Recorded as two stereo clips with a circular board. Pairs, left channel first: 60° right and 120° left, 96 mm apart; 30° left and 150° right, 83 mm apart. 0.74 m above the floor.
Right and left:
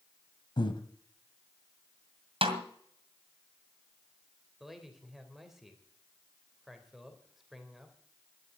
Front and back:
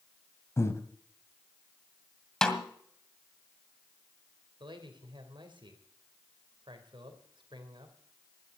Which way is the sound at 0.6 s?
25° right.